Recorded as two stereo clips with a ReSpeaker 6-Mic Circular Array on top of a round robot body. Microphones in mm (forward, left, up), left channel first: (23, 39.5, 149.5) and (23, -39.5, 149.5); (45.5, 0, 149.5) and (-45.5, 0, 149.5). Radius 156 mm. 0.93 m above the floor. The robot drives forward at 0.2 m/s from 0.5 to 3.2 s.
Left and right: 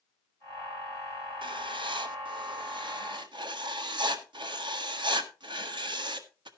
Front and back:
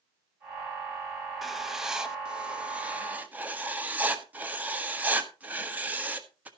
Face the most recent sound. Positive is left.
turn(degrees=-105)